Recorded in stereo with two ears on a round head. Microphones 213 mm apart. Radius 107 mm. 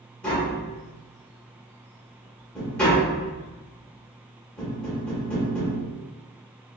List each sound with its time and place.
0.2 s tapping: 5° left (ahead or behind), 1.5 m